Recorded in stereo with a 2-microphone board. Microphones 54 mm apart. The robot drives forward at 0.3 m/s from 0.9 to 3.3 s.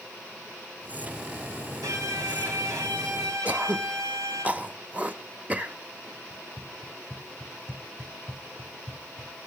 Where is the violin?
70° right (ahead or behind), 7 m; by 4.5 s 75° right (ahead or behind), 6.5 m.